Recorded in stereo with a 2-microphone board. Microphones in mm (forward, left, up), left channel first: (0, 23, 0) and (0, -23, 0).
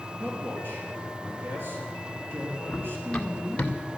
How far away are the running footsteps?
About 1.6 m.